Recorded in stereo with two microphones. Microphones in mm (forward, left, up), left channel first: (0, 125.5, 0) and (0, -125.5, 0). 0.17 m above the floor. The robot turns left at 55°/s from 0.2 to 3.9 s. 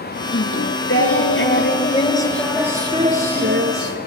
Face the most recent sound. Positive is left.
turn(degrees=-75)